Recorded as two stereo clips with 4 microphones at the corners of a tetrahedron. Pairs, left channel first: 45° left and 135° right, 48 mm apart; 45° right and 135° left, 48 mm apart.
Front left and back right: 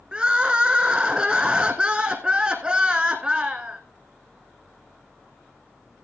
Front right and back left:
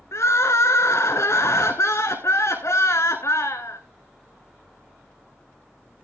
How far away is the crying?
About 1.6 m.